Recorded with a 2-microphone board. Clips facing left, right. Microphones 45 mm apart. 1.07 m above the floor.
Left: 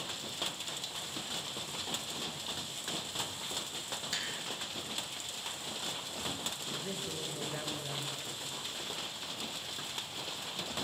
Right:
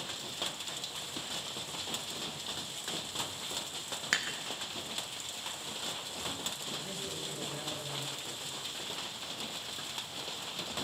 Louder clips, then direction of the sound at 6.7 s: Left 1 dB; 30° left (ahead or behind).